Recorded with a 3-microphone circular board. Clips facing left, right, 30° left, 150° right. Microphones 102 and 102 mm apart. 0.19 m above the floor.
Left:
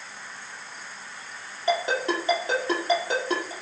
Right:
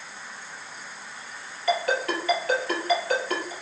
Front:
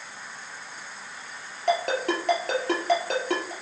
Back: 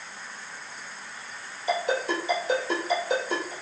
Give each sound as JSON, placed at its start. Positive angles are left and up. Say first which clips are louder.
{"t": 1.7, "sound": "a ringtone", "louder": "even, front 2 dB", "azimuth_deg": 25, "distance_m": 3.0}